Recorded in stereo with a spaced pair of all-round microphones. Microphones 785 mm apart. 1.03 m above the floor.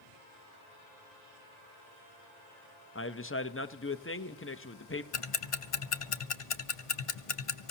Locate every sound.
3.0 s a man speaking: 15° left (ahead or behind), 0.7 m
5.1 s ticking: 45° left (ahead or behind), 0.7 m